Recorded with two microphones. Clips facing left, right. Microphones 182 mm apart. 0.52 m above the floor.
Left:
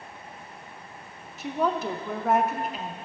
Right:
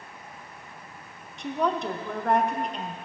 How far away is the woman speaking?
About 0.7 m.